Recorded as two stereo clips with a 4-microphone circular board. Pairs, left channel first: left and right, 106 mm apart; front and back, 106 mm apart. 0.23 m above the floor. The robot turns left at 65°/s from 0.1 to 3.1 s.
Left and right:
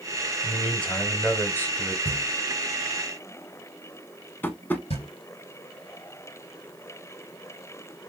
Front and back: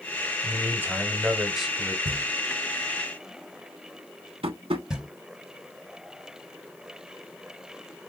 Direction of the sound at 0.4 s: 175° left.